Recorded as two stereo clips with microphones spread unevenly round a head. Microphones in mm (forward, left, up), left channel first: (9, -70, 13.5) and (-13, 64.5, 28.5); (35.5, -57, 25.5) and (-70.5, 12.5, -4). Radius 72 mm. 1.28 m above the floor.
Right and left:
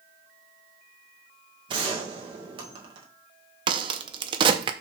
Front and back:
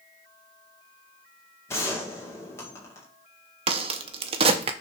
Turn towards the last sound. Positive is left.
turn(degrees=100)